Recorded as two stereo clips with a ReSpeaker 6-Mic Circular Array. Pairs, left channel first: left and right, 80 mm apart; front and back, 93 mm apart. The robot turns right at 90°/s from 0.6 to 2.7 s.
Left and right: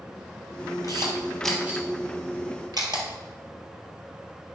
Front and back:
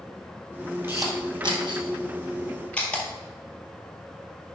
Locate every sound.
0.8 s a camera shutter: 120° left, 1.9 m; by 3.0 s 75° right, 1.9 m